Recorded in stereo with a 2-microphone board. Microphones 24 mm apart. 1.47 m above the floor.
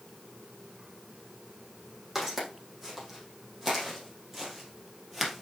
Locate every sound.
2.1 s footsteps: 10° right (ahead or behind), 5 m; by 5.4 s 5° right (ahead or behind), 2 m